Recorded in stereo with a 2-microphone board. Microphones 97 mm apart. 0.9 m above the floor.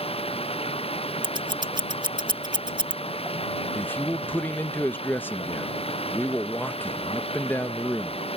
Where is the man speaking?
20° left (ahead or behind).